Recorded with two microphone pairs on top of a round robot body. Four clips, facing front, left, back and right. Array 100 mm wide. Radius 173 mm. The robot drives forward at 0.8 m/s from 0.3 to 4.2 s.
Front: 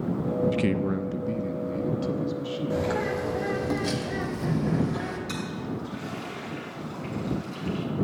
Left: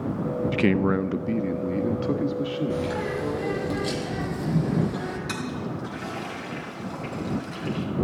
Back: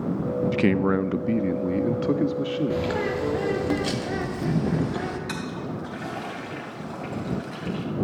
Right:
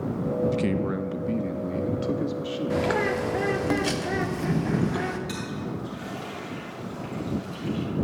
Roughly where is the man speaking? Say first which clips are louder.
Left 4 dB, back 4 dB; behind left.